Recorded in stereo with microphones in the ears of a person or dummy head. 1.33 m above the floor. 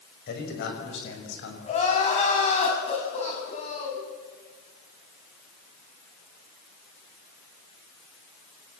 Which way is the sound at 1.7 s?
35° left (ahead or behind).